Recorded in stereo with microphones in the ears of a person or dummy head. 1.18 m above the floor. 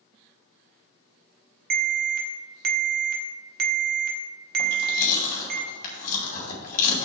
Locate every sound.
1.7 s an alarm: 50° right (ahead or behind), 1.7 m
4.6 s chewing: 45° left (ahead or behind), 3 m